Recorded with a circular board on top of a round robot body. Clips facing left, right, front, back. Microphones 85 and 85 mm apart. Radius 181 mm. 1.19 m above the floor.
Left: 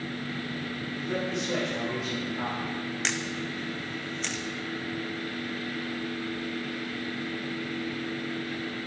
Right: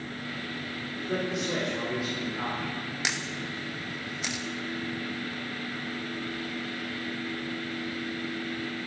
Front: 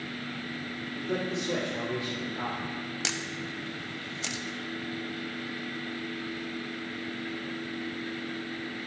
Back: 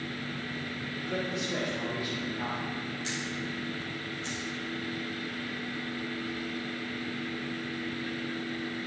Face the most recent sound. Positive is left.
turn(degrees=-10)